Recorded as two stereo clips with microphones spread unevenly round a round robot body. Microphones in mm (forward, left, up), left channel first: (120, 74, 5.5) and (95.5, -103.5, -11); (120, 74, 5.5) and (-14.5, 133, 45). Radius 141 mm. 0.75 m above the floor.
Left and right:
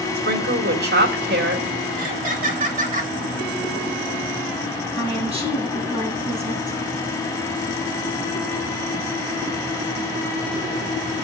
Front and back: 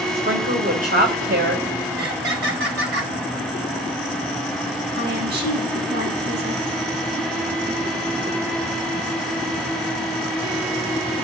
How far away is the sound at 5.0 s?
About 7 m.